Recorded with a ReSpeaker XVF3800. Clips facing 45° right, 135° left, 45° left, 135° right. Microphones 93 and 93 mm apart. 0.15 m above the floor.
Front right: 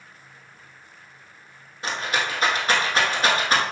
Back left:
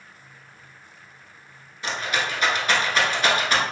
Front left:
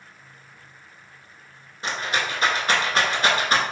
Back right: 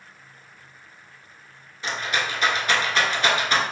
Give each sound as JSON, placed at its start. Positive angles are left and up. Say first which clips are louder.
{"t": 1.8, "sound": "a rattle", "louder": "even, front left 1 dB", "azimuth_deg": 0, "distance_m": 0.8}